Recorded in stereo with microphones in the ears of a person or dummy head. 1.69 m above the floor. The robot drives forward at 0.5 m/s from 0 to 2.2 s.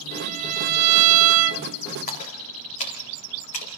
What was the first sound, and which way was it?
A violin, 40° right (ahead or behind).